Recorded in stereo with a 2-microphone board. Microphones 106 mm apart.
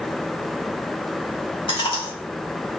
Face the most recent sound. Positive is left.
turn(degrees=50)  # may be behind; listen again after turning